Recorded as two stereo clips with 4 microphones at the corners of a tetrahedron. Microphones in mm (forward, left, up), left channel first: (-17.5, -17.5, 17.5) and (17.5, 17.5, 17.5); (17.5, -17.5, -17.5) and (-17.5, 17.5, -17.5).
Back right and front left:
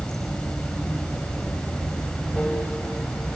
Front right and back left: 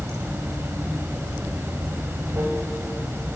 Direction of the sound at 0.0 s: 155° left.